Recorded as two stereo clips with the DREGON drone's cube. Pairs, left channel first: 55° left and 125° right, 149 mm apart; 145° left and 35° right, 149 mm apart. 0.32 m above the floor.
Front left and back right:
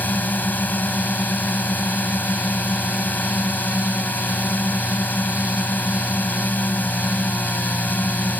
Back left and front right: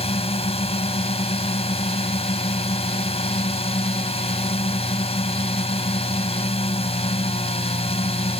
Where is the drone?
130° left.